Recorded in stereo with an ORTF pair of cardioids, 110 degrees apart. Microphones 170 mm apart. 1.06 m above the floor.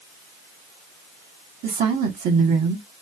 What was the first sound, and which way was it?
A woman speaking, 60° right.